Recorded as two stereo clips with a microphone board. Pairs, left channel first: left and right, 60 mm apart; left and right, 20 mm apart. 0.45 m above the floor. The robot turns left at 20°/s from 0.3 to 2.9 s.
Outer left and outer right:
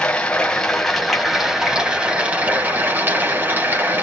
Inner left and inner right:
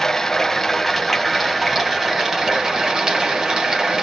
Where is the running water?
15° left, 1.4 m; by 4.0 s 35° right, 1.4 m.